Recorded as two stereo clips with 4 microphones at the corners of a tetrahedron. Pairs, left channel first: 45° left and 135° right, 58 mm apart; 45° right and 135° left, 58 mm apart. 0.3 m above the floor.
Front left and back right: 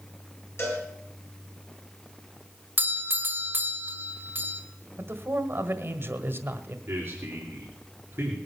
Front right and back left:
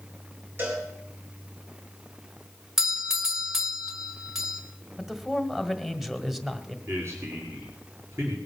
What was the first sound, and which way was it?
A cowbell, 85° left.